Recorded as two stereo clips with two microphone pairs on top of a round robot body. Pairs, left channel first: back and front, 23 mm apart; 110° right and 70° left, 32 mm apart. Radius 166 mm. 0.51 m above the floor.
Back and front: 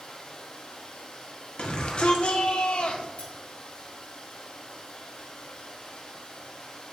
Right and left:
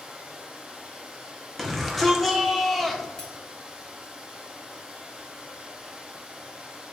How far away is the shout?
About 2 m.